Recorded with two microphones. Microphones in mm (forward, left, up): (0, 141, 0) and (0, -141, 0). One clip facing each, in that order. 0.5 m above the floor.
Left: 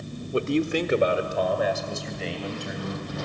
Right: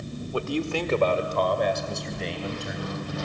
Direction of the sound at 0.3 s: 25° left (ahead or behind).